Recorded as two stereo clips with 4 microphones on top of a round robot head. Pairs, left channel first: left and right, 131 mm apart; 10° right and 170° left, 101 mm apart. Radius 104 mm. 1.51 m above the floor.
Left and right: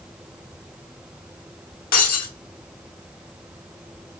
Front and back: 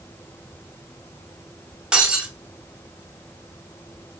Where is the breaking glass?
90° left, 3 m.